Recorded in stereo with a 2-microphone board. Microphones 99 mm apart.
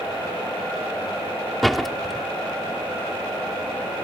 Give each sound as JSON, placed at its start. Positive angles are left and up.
{"t": 1.6, "sound": "a door slam", "side_deg": 0}